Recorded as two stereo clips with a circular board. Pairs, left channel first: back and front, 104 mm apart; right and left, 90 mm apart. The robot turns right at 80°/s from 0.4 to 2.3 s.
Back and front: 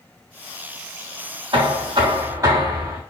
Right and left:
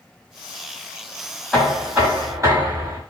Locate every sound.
1.5 s knocking: 20° right, 1.5 m; by 3.0 s 45° left, 1.5 m